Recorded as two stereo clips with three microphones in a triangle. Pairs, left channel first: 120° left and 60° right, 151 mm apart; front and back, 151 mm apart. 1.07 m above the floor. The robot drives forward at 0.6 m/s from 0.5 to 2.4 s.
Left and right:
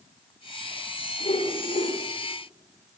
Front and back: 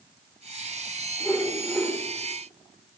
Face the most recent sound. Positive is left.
turn(degrees=95)